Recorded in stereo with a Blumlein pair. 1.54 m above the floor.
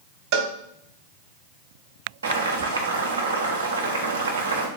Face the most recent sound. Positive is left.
turn(degrees=-65)